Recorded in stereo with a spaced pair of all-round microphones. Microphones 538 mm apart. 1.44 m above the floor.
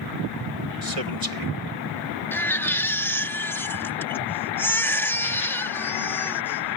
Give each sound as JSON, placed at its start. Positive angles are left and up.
{"t": 0.8, "sound": "a man speaking", "side_deg": -85}
{"t": 2.3, "sound": "a baby crying", "side_deg": 5}